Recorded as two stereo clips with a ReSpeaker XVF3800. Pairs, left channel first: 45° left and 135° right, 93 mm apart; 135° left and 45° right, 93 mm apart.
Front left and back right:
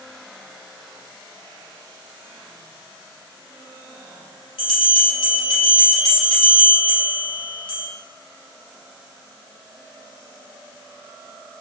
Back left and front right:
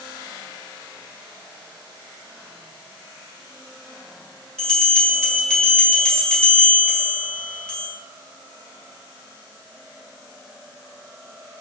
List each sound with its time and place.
4.6 s a bell: 55° left, 2.5 m